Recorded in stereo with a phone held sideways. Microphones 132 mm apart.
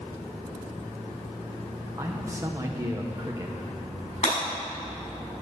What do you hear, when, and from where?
2.0 s a man speaking: 25° right (ahead or behind), 1.1 m
4.2 s breaking glass: 60° left (ahead or behind), 5.5 m